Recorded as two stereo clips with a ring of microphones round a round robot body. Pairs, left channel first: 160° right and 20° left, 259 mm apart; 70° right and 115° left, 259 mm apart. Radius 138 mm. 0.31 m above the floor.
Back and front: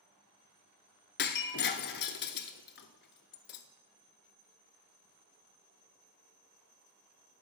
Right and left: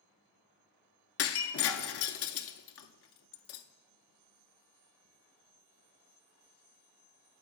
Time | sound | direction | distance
1.2 | breaking glass | 105° right | 0.6 m